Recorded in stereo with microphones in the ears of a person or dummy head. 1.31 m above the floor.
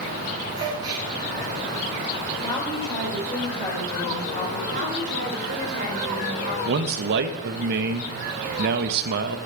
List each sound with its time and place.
0.6 s a gasp: 25° right (ahead or behind), 2 m
2.4 s a woman speaking: 15° left (ahead or behind), 5.5 m
4.7 s a woman speaking: 50° right (ahead or behind), 5 m
6.7 s a man speaking: 60° right (ahead or behind), 1.1 m